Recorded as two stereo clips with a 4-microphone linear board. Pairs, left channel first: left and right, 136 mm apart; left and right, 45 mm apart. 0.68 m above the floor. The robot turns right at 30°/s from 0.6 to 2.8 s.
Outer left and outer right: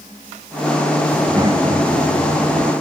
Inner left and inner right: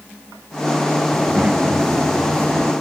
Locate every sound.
1.1 s a child speaking: 160° right; by 2.7 s 115° right